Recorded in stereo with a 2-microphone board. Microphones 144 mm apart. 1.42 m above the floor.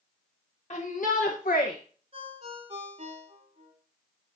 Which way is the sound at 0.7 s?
55° left (ahead or behind).